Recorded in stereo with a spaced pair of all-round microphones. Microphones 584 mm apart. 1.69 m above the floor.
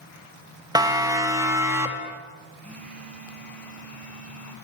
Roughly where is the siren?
Centre.